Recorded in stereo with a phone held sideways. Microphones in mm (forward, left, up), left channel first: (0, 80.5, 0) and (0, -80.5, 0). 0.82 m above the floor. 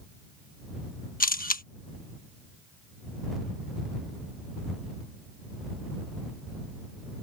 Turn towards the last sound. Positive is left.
turn(degrees=60)  # may be behind; listen again after turning